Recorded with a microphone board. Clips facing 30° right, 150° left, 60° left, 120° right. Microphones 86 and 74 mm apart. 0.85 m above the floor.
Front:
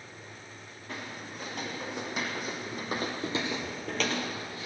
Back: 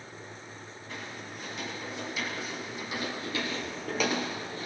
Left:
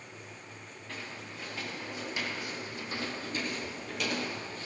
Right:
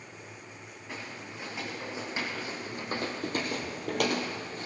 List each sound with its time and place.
0.9 s footsteps: 50° right, 5 m; by 4.7 s 165° right, 1.9 m